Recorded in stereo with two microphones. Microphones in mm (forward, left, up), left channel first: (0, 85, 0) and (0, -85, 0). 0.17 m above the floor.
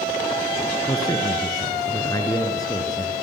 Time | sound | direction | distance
0.9 | a man speaking | 20° left (ahead or behind) | 2.5 m